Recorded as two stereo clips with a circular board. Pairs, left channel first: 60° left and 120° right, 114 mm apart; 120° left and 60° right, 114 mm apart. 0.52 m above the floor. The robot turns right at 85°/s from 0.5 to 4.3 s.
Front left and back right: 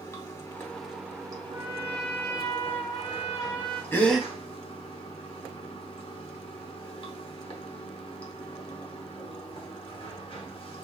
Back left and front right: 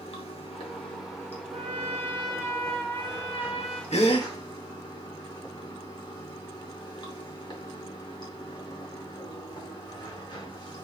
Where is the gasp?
130° left, 0.6 m; by 4.3 s 160° left, 0.6 m.